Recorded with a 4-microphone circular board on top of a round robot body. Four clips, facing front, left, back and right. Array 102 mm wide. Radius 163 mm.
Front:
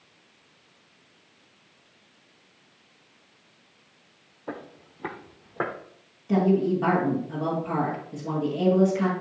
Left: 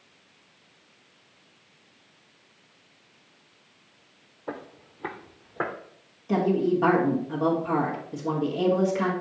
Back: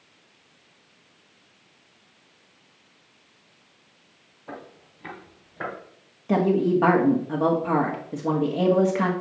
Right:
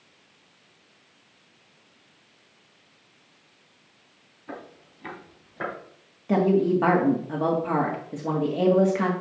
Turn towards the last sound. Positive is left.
turn(degrees=-155)